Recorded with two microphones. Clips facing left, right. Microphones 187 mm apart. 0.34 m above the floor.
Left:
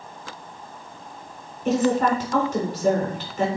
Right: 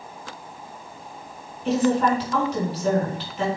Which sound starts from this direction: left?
A woman speaking, at 1.6 s.